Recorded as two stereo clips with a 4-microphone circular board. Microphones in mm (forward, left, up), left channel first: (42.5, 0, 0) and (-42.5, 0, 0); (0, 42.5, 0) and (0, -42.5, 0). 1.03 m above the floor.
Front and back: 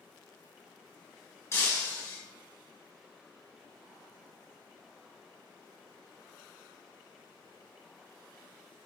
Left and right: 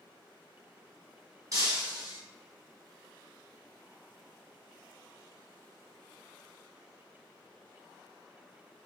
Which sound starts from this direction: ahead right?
Breaking glass, at 1.5 s.